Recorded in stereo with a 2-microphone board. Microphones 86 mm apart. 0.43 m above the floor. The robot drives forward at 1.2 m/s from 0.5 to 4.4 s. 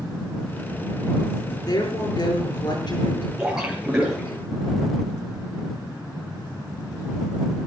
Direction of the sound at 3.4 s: 10° right (ahead or behind).